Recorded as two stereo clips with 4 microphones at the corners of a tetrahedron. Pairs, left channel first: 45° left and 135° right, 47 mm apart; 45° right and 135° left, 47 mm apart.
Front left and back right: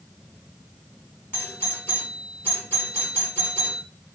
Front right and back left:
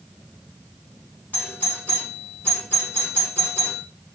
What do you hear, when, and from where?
1.3 s a doorbell: 10° left, 5 m